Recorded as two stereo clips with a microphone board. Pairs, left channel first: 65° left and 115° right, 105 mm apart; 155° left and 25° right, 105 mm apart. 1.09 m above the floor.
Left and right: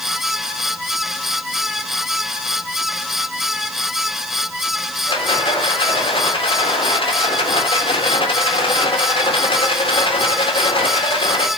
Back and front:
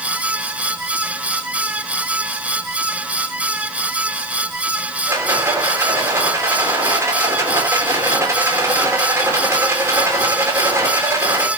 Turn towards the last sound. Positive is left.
turn(degrees=40)